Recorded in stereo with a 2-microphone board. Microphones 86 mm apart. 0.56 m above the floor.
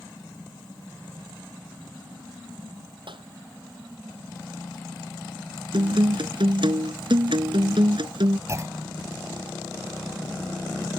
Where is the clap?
70° right (ahead or behind).